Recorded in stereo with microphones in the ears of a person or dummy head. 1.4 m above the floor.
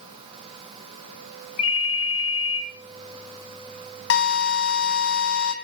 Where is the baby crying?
I don't hear a baby crying.